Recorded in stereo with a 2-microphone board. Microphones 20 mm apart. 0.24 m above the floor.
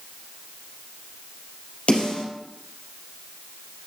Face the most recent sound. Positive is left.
turn(degrees=70)  # may be behind; listen again after turning